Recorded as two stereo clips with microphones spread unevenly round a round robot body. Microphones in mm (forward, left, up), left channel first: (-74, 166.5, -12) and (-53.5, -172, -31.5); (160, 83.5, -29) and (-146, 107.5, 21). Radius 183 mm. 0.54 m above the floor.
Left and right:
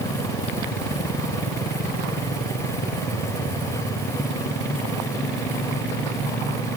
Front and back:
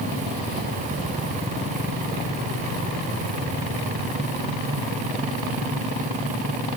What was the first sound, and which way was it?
Only background noise.